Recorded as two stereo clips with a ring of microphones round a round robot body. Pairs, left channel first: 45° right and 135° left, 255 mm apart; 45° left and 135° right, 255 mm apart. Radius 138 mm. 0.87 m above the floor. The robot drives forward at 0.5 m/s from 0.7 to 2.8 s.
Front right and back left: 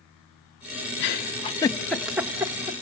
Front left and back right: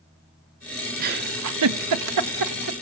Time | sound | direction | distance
1.0 | a giggle | 85° right | 0.6 m